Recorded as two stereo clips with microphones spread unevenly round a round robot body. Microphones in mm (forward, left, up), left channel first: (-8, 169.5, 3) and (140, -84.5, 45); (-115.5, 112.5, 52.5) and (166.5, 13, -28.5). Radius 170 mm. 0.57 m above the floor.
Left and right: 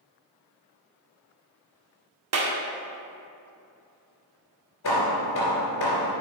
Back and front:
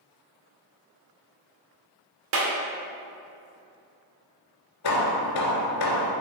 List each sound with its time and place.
2.3 s a clap: 25° right, 1.6 m
4.8 s hammering: 175° left, 2.5 m